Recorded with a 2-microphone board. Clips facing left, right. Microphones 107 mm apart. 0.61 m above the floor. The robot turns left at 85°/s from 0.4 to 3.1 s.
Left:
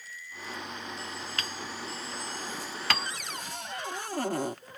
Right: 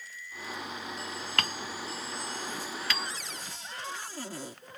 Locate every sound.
1.4 s hammering: 70° right (ahead or behind); by 3.1 s 75° left (ahead or behind)
3.0 s a cupboard door: 60° left (ahead or behind)